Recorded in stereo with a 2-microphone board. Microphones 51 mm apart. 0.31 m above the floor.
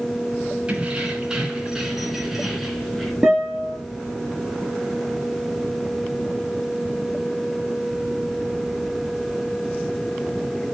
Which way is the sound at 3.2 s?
5° right (ahead or behind).